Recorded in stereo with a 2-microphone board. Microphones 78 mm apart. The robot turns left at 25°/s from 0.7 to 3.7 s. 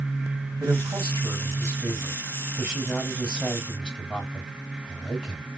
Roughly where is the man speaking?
Behind right.